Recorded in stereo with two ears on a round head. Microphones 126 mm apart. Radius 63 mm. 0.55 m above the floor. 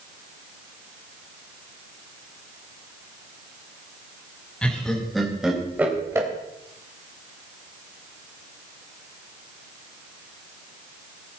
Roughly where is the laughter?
Centre.